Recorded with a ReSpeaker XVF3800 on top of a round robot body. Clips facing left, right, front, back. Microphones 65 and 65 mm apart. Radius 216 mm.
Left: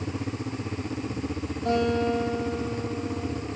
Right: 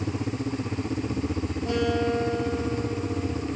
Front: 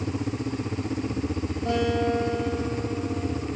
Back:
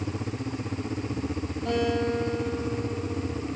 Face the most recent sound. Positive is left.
turn(degrees=80)